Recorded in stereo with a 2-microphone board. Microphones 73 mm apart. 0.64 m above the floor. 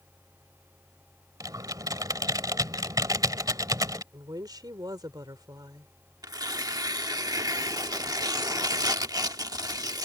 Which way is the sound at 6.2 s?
60° right (ahead or behind).